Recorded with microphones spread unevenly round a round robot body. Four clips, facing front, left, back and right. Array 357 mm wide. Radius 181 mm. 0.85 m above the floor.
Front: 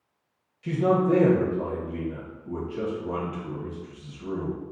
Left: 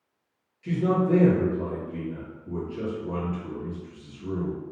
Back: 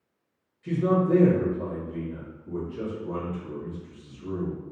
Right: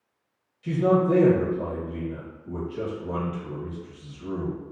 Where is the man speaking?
20° right, 1.0 m.